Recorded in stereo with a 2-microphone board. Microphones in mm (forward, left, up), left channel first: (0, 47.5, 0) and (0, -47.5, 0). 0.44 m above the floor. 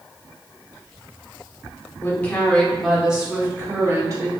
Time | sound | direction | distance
2.0 | a woman speaking | 25° left (ahead or behind) | 1.0 m